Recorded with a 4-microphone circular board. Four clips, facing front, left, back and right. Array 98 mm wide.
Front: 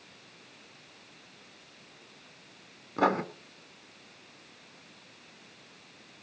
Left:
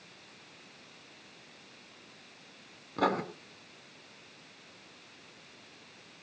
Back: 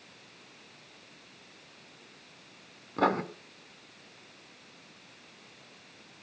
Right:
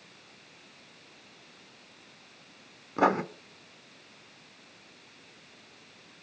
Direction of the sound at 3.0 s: 75° right.